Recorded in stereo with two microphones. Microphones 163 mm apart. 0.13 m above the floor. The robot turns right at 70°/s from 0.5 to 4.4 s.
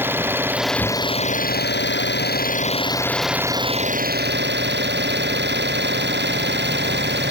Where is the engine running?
10° right; by 7.3 s 100° right.